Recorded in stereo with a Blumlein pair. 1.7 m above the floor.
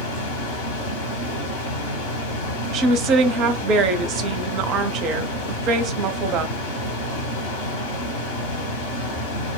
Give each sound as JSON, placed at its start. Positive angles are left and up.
{"t": 0.0, "sound": "a fan", "azimuth_deg": 55, "distance_m": 1.1}
{"t": 2.7, "sound": "a woman speaking", "azimuth_deg": -35, "distance_m": 0.6}